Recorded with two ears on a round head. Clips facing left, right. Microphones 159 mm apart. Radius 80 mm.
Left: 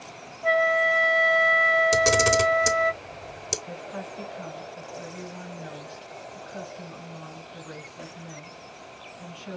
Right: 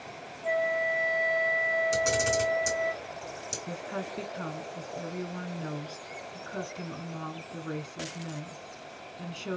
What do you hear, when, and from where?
0.4 s a flute: 75° left (ahead or behind), 0.6 m
1.9 s a camera shutter: 75° left (ahead or behind), 1.2 m
3.7 s a woman speaking: 60° right (ahead or behind), 1.5 m